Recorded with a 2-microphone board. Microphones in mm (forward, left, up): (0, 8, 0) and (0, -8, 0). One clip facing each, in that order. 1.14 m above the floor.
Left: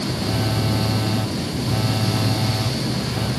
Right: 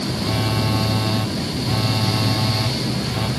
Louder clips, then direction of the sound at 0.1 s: Right 1 dB; 20° right (ahead or behind).